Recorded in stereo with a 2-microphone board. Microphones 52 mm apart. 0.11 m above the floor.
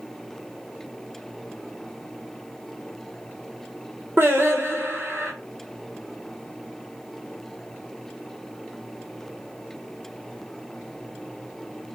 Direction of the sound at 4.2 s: 55° right (ahead or behind).